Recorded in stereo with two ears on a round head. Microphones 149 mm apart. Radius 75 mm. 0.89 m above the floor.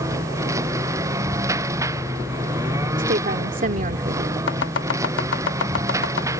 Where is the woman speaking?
50° right (ahead or behind).